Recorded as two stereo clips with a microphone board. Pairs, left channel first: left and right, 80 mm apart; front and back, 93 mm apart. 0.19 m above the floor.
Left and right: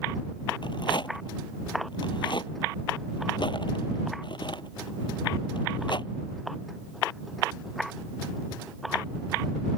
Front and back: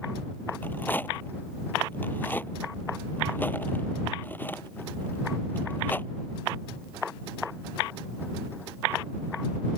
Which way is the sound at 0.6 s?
70° left.